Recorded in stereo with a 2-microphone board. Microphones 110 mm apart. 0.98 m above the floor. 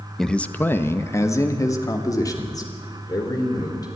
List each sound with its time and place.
0.2 s a man speaking: 5° left (ahead or behind), 0.9 m; by 3.9 s 35° left (ahead or behind), 4.5 m